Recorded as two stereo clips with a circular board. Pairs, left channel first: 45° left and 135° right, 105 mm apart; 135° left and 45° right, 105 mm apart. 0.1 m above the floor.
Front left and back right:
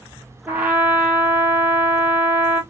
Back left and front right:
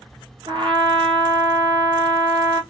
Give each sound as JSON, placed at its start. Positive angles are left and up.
{"t": 0.5, "sound": "a trumpet", "azimuth_deg": -65, "distance_m": 0.9}